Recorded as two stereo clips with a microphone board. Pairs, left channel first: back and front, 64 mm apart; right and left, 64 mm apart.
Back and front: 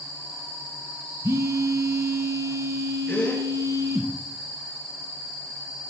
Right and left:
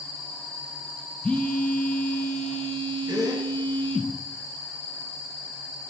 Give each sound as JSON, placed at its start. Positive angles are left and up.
{"t": 1.2, "sound": "a phone buzzing", "azimuth_deg": -20, "distance_m": 1.1}
{"t": 3.1, "sound": "a gasp", "azimuth_deg": 115, "distance_m": 3.0}